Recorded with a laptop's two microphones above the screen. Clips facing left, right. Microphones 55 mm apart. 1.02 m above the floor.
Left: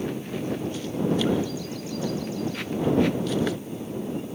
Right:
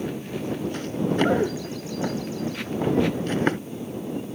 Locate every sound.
0.7 s running footsteps: 45° right (ahead or behind); by 3.6 s 40° right (ahead or behind)